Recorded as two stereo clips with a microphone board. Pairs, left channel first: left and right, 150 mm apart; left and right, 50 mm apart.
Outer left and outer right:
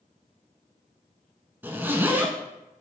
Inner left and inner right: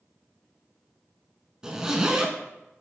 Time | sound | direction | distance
1.6 | a zipper | 15° right (ahead or behind) | 0.6 m